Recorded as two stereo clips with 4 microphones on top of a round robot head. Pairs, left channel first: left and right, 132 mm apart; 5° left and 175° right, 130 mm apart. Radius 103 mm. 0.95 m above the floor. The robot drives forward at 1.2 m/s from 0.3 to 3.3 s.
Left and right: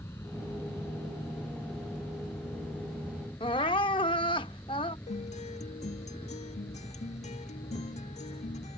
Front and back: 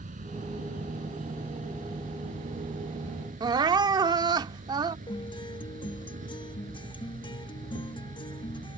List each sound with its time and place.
0.0 s an insect: 165° left; by 8.8 s 170° left
3.4 s crying: 145° left
5.1 s a guitar: 60° left